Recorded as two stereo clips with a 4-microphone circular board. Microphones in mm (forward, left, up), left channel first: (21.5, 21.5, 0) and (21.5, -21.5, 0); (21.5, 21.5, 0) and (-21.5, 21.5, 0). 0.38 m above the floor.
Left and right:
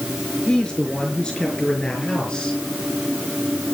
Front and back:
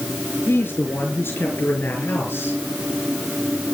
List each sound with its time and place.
0.5 s a man speaking: 20° left, 5.5 m; by 2.6 s 25° left, 7 m